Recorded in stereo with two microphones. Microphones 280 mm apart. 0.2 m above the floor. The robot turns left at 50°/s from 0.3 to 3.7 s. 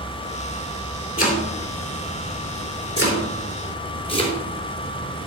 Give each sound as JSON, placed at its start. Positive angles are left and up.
{"t": 1.2, "sound": "chopping", "side_deg": 30, "distance_m": 4.0}